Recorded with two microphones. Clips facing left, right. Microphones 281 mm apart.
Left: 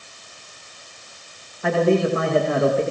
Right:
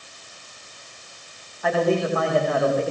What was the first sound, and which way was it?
A man speaking, 30° left (ahead or behind).